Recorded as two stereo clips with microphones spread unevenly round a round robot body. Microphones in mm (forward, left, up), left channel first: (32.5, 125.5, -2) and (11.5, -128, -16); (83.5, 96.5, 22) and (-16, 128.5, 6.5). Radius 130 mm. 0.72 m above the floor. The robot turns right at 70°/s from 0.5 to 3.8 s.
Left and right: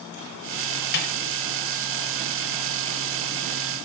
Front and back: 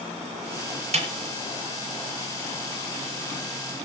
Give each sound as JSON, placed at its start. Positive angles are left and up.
{"t": 0.9, "sound": "a snare drum", "azimuth_deg": 140, "distance_m": 3.0}